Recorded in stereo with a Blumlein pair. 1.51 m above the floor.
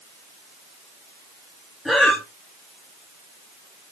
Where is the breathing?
5° left, 1.1 m.